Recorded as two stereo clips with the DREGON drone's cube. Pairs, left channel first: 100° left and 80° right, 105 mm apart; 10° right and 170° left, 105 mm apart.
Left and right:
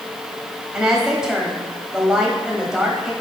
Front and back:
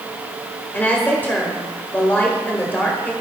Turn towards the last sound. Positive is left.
turn(degrees=-10)